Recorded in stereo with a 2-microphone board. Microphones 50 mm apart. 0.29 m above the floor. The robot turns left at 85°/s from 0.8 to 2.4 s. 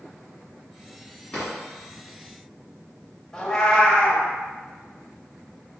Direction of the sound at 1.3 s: 20° left (ahead or behind).